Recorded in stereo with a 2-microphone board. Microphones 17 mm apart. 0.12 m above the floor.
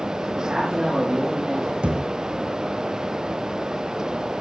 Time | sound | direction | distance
0.4 | a man speaking | 35° right (ahead or behind) | 8.5 m
1.8 | a thud | 65° right (ahead or behind) | 3 m